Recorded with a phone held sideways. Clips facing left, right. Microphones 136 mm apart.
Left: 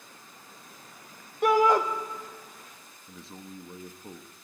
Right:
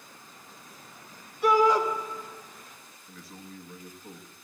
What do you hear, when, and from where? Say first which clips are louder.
1.4 s a shout: even; 50° left (ahead or behind), 1.1 m
3.1 s a man speaking: left 2 dB; 25° left (ahead or behind), 0.9 m